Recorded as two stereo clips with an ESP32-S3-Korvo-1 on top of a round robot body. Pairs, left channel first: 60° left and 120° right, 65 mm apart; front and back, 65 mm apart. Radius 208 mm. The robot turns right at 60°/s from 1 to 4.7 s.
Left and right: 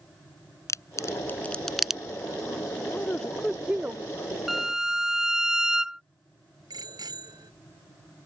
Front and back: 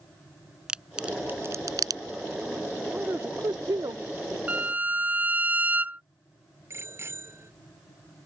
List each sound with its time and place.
0.7 s a crack: 100° left; by 2.0 s 165° left
2.8 s a man speaking: 115° left; by 4.4 s 150° right
4.5 s a violin: 155° left; by 6.0 s 170° left
6.7 s a bicycle bell: 130° right